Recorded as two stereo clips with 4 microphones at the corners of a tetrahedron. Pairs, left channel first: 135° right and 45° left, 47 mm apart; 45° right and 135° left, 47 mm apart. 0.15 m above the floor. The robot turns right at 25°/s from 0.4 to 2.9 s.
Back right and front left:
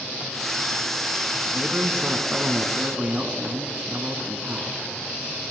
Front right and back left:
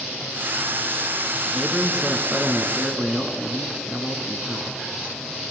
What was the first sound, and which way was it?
A man speaking, 45° left.